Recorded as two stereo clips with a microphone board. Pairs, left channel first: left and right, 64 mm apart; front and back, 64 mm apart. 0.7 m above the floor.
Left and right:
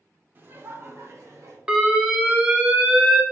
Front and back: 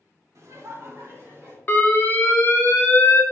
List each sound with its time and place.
0.3 s laughter: 145° right, 1.6 m; by 1.6 s 130° right, 3 m
1.7 s an alarm: 30° right, 1.6 m